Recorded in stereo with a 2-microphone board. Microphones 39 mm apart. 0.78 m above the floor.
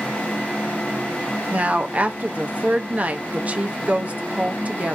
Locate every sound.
1.5 s a woman speaking: 40° right (ahead or behind), 0.7 m